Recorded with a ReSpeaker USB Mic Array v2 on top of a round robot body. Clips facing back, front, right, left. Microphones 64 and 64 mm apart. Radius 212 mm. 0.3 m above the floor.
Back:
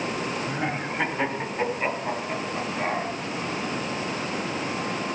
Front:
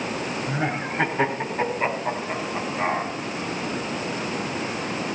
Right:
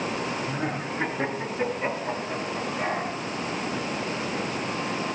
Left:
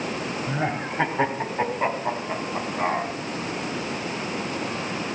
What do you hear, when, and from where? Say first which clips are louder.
0.5 s laughter: front 2 dB, left 3 dB; 80° left, 2.5 m; by 3.1 s 65° left, 4 m